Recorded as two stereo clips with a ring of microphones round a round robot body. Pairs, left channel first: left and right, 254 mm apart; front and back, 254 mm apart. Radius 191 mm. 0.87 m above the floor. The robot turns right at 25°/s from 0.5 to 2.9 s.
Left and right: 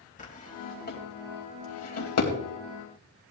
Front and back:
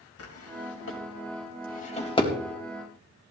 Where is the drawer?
30° left, 3 m; by 2.3 s 75° left, 3 m.